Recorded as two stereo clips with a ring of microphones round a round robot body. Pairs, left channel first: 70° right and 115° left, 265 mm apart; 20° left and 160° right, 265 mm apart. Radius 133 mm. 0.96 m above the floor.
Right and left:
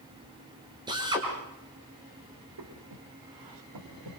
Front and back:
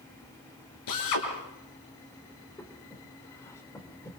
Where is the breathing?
105° left, 3 m.